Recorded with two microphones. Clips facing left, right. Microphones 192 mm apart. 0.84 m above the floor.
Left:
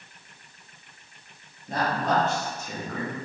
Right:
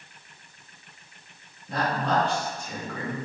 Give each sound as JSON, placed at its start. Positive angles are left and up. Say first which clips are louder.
{"t": 1.7, "sound": "a woman speaking", "louder": "left 1 dB", "side_deg": 40, "distance_m": 1.6}